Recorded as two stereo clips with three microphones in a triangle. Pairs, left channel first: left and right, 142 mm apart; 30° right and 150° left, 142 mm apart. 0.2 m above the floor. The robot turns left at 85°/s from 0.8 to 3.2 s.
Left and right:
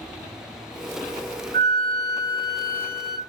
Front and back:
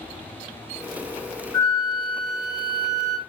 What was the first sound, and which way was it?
A flute, 45° left.